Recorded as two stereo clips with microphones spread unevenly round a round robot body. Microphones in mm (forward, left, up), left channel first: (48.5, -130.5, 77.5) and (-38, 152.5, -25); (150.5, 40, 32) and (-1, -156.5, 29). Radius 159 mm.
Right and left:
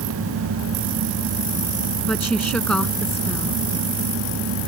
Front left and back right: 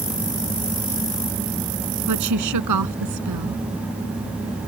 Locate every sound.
2.1 s a woman speaking: 160° right